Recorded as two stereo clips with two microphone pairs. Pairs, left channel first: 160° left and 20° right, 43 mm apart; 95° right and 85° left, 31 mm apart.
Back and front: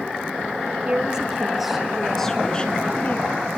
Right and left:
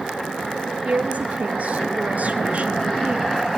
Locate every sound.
0.8 s a woman speaking: 50° left, 3.5 m; by 3.3 s 130° left, 2 m